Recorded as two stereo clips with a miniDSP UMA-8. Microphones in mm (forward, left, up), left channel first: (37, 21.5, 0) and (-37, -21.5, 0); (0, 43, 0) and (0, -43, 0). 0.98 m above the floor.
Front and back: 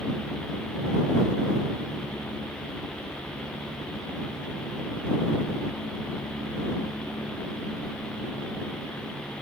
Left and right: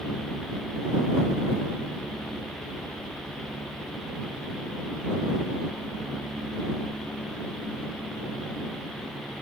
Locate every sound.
Only background noise.